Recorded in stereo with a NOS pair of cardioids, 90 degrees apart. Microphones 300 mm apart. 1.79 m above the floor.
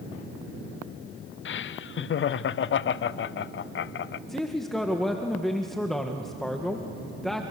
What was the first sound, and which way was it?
Laughter, 40° left.